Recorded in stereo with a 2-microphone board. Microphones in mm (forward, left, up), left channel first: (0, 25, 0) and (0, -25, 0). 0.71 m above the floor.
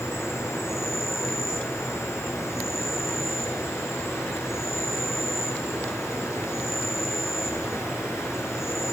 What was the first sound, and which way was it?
An insect, 70° left (ahead or behind).